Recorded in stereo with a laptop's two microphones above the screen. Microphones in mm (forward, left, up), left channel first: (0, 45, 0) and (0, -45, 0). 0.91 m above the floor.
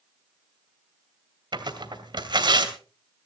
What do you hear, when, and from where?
1.5 s tearing paper: 55° right (ahead or behind), 2.5 m